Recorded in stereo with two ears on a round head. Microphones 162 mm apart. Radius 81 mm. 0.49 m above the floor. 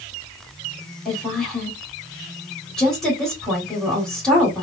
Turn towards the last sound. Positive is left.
turn(degrees=5)  # may be behind; listen again after turning